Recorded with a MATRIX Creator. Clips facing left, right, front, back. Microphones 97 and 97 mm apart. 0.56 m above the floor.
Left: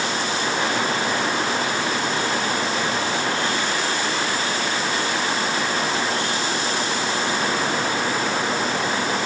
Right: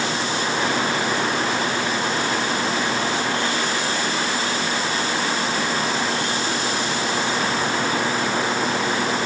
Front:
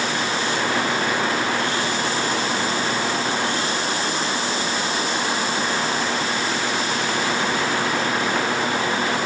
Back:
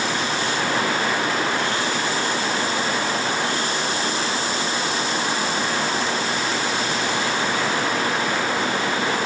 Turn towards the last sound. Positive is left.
No sound to turn to.